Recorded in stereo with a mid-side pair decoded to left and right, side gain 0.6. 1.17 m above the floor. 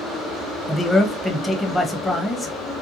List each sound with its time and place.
0.7 s a man speaking: 15° left, 0.9 m